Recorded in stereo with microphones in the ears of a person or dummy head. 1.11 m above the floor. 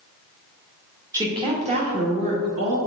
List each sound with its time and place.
1.1 s a woman speaking: 15° right (ahead or behind), 1.1 m; by 2.8 s 50° right (ahead or behind), 1.5 m